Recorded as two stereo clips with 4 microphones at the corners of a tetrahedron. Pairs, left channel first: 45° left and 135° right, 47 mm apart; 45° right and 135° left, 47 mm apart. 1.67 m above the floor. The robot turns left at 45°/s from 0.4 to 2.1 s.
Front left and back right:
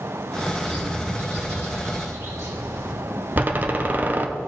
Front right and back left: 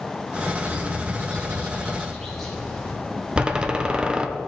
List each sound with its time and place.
0.6 s a bird: 65° right, 3 m; by 2.9 s 135° right, 3 m
3.4 s a door slam: 165° right, 0.7 m